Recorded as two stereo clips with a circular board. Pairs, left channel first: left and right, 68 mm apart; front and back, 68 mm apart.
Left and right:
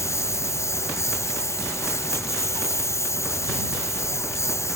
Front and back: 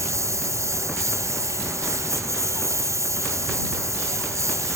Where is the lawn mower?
135° left.